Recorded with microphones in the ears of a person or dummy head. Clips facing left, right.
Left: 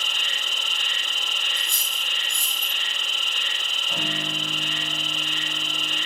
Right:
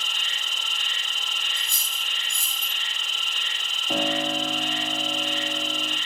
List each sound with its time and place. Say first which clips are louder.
0.0 s an insect: left 3 dB; 55° left (ahead or behind), 0.9 m
1.6 s cutlery clinking: left 3 dB; 85° right, 7 m
3.9 s a piano: right 7 dB; 65° right (ahead or behind), 6 m